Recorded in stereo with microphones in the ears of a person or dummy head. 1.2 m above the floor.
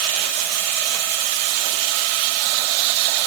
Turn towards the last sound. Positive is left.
No sound to turn to.